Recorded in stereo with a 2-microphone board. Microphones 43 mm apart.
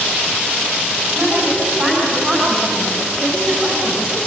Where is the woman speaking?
15° right (ahead or behind), 6 m.